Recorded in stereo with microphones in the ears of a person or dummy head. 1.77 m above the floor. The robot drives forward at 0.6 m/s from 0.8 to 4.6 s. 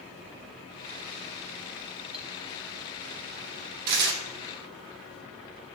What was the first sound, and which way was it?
Cutlery clinking, centre (ahead or behind).